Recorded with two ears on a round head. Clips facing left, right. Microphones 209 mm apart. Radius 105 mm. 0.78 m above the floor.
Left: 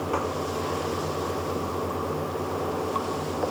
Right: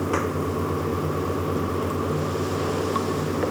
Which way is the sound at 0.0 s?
25° right (ahead or behind).